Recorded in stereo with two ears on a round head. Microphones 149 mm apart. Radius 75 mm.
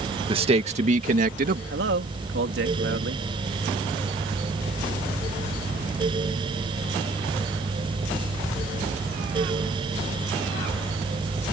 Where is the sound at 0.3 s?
30° right (ahead or behind); by 1.6 s 55° right (ahead or behind).